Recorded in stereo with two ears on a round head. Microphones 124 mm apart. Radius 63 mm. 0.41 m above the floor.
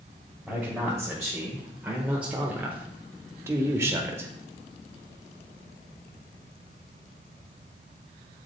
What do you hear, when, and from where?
0.5 s a man speaking: centre (ahead or behind), 1.7 m; by 4.3 s 20° right (ahead or behind), 1.1 m